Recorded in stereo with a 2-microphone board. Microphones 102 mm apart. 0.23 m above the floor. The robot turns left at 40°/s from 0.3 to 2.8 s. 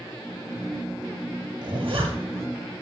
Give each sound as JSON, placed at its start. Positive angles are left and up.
{"t": 1.6, "sound": "a zipper", "side_deg": -45, "distance_m": 2.5}